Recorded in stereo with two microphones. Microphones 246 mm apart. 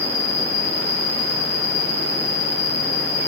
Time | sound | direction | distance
0.0 | an insect | 50° left (ahead or behind) | 1.0 m